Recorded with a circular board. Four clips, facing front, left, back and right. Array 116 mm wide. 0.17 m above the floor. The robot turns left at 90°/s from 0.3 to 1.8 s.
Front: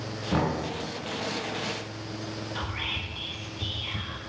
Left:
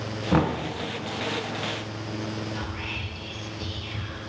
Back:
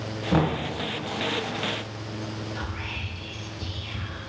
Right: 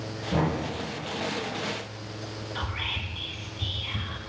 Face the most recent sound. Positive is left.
turn(degrees=-60)